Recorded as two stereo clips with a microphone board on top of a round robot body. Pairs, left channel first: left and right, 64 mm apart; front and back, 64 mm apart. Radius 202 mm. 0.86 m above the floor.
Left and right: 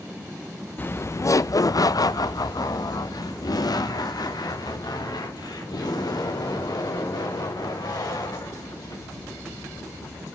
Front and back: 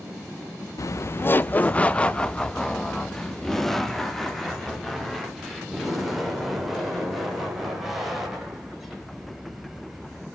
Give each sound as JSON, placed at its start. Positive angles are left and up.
{"t": 0.8, "sound": "laughter", "azimuth_deg": 30, "distance_m": 0.5}